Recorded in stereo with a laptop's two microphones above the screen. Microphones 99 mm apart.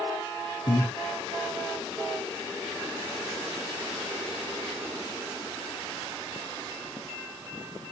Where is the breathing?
50° left (ahead or behind), 1.4 m.